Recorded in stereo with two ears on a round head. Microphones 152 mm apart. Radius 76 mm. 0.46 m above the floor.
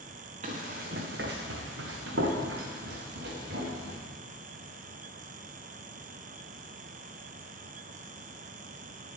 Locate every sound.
0.4 s running footsteps: 40° right (ahead or behind), 2.5 m; by 4.0 s 60° right (ahead or behind), 5.5 m